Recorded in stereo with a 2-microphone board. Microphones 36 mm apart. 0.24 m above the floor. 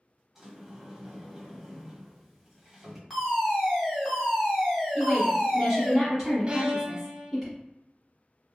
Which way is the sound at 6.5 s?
30° right (ahead or behind).